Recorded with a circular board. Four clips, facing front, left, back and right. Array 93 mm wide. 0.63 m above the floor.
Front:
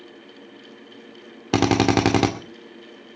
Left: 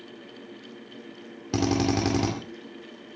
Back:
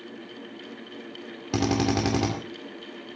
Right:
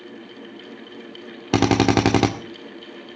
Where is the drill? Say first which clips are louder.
Right 7 dB, front 6 dB; 50° right, 2 m.